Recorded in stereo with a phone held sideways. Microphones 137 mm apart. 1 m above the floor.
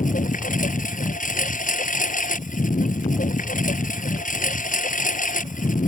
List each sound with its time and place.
0.0 s a lawn mower: 75° left (ahead or behind)